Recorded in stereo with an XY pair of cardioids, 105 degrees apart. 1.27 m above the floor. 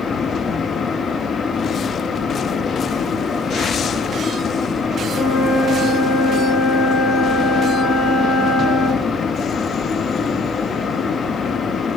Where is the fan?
45° left, 1.2 m.